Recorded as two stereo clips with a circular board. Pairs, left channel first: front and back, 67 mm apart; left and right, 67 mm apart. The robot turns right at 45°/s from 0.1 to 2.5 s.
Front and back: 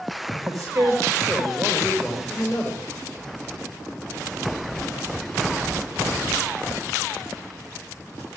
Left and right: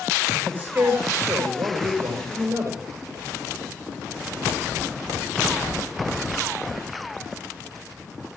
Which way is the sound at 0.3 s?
165° right.